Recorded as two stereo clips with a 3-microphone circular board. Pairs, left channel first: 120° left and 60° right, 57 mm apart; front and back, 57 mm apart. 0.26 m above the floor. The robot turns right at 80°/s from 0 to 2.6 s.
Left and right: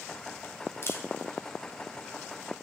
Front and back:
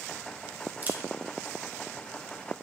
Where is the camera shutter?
130° left, 1.8 m; by 1.0 s 145° left, 1.8 m.